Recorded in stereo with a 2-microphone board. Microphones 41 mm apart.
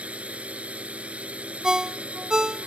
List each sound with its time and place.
0.0 s a drone: 35° right (ahead or behind)
1.6 s a ringtone: 20° right (ahead or behind)